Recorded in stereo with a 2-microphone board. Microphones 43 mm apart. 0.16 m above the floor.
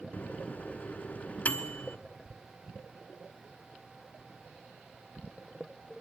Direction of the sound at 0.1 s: 35° left (ahead or behind).